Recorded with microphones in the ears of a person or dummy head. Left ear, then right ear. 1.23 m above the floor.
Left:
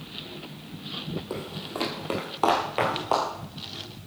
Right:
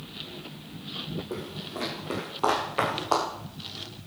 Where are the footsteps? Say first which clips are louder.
Left 2 dB; 50° left (ahead or behind), 2.5 m; by 3.3 s 5° left (ahead or behind), 1.8 m.